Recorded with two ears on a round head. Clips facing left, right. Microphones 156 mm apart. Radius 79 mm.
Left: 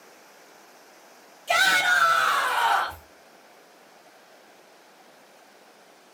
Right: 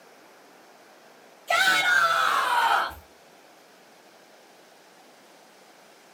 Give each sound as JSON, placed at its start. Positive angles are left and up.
{"t": 1.5, "sound": "a shout", "side_deg": 30, "distance_m": 1.5}